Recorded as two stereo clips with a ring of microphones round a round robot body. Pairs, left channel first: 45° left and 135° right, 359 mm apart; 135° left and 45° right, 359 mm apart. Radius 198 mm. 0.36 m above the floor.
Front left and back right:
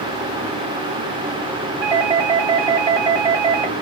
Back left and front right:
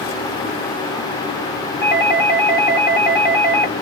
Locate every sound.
1.8 s a doorbell: 150° left, 2.5 m